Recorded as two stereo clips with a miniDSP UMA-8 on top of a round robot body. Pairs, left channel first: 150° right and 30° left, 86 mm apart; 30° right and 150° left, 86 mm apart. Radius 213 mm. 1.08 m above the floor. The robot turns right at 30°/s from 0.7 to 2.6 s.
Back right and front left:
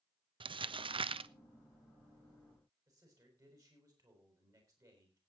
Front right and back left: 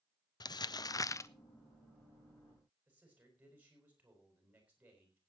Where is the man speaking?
80° left, 5.5 m.